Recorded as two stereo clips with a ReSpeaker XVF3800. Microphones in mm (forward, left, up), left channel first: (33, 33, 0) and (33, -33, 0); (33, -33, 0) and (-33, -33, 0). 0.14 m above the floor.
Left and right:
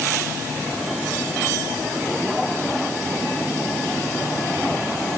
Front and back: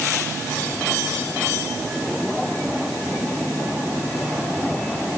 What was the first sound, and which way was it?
Only background noise.